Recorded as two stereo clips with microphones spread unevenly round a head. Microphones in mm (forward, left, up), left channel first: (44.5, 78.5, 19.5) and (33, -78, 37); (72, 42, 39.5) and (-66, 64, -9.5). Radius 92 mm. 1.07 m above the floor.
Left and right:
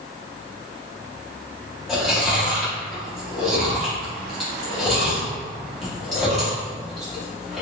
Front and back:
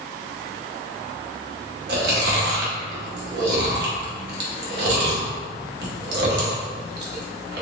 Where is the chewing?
175° left, 1.0 m.